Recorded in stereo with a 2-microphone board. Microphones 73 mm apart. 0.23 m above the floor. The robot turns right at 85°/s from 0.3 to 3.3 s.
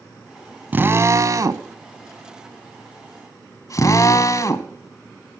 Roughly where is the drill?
Right.